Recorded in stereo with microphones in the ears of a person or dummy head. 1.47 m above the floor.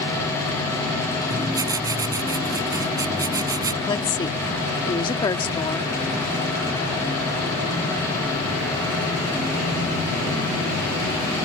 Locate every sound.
1.3 s writing: 15° right (ahead or behind)
3.9 s a woman speaking: 25° left (ahead or behind)